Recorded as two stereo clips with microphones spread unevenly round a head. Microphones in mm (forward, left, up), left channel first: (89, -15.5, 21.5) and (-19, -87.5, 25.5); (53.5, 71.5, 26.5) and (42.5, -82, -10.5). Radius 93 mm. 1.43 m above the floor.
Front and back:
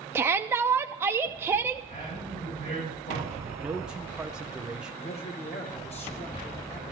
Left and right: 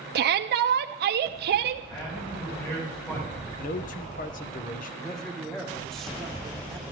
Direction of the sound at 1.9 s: 20° left.